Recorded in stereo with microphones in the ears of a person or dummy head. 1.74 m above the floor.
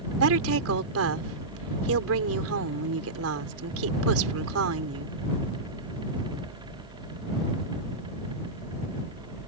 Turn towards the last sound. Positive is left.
turn(degrees=-85)